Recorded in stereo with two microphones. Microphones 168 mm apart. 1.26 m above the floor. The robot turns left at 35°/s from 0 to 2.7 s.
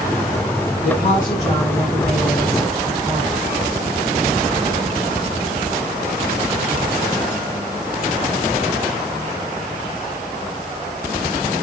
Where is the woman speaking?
65° left, 7 m; by 3.4 s 5° right, 7 m.